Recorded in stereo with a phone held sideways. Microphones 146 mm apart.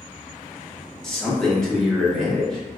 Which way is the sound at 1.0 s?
5° left (ahead or behind).